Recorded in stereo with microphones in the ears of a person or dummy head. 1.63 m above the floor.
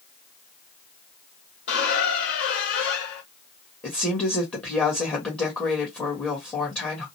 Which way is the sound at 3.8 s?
5° left (ahead or behind).